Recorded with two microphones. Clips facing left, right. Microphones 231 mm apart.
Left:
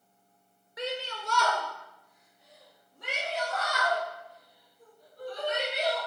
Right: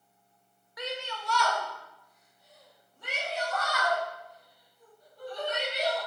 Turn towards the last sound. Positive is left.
turn(degrees=65)  # may be behind; listen again after turning